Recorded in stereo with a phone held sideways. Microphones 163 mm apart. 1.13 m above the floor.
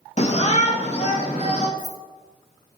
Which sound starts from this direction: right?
Keys jangling, at 1.8 s.